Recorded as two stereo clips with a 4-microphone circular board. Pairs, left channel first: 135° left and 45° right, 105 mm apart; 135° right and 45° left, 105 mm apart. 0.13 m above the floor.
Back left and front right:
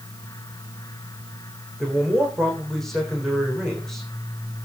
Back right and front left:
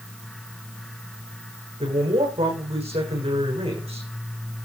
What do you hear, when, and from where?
1.8 s a man speaking: 50° left, 7 m